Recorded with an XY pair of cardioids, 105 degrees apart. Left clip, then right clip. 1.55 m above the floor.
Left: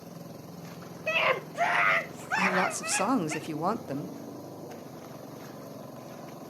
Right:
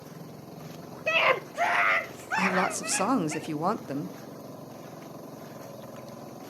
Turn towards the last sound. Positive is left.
turn(degrees=-10)